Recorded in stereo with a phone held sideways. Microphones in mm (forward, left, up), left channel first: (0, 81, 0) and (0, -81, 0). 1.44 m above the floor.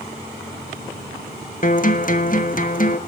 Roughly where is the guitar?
Left.